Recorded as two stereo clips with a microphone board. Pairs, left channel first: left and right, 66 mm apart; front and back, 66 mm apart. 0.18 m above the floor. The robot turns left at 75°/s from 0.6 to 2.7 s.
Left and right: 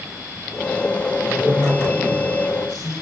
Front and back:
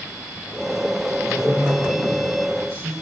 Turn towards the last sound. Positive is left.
turn(degrees=160)